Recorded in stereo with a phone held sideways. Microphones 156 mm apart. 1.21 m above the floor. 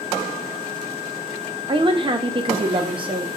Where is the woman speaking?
35° right (ahead or behind), 0.6 m.